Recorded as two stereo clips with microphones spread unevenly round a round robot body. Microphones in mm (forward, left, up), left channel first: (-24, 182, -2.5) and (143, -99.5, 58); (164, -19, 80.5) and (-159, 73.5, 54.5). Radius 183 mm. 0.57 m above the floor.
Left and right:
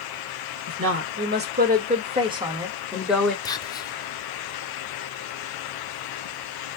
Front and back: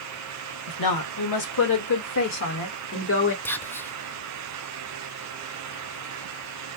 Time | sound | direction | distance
0.7 | a woman speaking | 10° right | 2 m
3.5 | whispering | 70° left | 0.7 m